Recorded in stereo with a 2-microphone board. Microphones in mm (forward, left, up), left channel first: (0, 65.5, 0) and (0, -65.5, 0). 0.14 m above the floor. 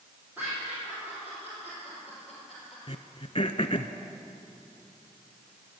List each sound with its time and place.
0.4 s laughter: 15° right (ahead or behind), 5.5 m; by 2.8 s 5° right (ahead or behind), 3.5 m
2.9 s throat clearing: 50° left (ahead or behind), 0.6 m